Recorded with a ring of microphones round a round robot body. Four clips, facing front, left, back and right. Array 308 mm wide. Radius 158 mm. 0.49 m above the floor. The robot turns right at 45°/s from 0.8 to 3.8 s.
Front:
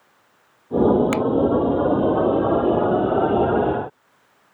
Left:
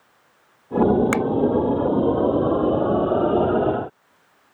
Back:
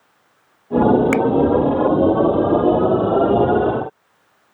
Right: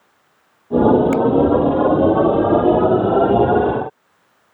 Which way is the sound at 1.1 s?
100° left.